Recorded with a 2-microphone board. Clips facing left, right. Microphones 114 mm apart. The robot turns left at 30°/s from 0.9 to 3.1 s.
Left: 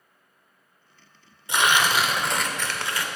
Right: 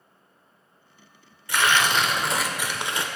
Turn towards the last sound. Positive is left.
turn(degrees=-25)